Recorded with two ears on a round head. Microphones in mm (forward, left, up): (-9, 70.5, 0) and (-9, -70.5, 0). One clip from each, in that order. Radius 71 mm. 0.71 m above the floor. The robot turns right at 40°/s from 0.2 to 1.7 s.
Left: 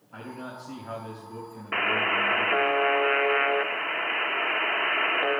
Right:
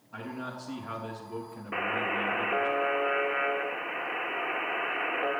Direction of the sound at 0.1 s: 165° left.